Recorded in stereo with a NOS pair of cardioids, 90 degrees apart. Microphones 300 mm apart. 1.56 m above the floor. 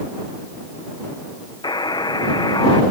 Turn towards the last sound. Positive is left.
turn(degrees=15)